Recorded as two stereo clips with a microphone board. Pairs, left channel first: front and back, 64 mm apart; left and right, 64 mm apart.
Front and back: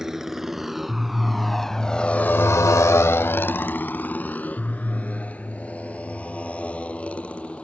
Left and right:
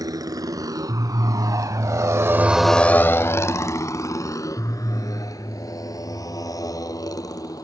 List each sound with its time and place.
0.0 s a motorcycle: 95° right; by 7.6 s 70° left